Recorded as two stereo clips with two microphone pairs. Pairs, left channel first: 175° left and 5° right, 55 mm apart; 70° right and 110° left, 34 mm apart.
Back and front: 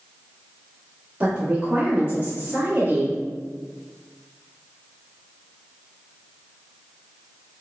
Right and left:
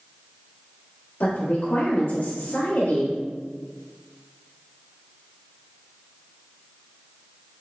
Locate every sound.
1.2 s a woman speaking: 70° right, 1.6 m